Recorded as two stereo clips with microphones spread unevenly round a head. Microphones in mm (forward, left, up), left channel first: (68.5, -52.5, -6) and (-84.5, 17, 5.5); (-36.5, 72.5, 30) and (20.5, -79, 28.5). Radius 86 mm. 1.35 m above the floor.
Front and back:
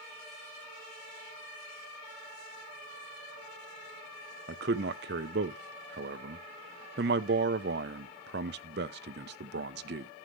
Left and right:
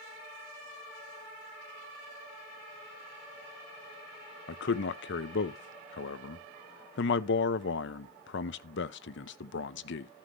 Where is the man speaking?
120° left, 0.8 m.